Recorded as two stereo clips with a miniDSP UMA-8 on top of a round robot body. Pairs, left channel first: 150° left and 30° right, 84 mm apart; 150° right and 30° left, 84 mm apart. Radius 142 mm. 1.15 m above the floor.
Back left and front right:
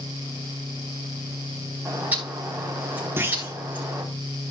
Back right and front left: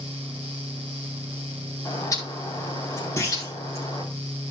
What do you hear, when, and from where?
1.9 s a bird: 100° right, 4 m
3.2 s a clunk: 90° right, 0.9 m